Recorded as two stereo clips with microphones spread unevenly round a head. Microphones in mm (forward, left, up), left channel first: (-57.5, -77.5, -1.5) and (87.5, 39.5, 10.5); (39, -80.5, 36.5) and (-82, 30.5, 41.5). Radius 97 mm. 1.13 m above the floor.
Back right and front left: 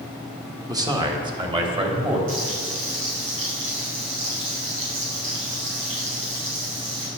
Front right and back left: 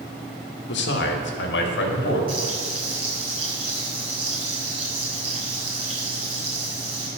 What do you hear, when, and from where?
0.7 s a man speaking: 35° right, 1.6 m; by 2.2 s 25° right, 3 m
2.3 s frying: 75° left, 5.5 m